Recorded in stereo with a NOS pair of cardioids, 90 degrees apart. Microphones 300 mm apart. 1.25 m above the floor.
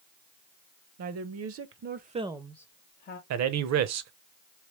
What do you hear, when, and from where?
1.0 s a woman speaking: 65° right, 1.0 m; by 3.2 s 40° left, 0.7 m
3.3 s a man speaking: 65° right, 0.8 m